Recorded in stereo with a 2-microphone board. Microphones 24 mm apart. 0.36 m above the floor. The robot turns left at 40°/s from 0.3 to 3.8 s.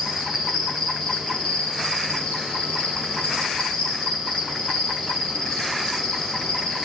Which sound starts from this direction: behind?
An insect, at 0.0 s.